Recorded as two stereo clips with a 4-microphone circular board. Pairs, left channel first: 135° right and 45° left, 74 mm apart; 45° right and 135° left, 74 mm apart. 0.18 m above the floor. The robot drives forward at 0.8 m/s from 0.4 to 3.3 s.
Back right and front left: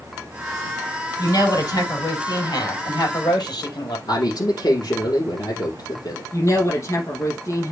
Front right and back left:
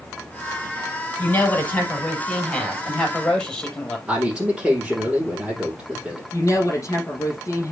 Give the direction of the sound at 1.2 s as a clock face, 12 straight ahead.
4 o'clock.